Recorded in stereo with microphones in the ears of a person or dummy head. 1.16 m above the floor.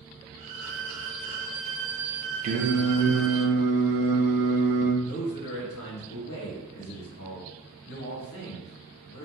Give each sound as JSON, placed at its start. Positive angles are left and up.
{"t": 0.4, "sound": "a violin", "side_deg": -40, "distance_m": 0.8}
{"t": 2.4, "sound": "singing", "side_deg": -40, "distance_m": 0.6}
{"t": 5.0, "sound": "a man speaking", "side_deg": 70, "distance_m": 1.1}